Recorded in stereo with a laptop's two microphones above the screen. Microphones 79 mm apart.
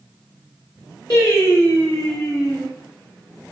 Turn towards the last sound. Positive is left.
turn(degrees=55)  # may be behind; listen again after turning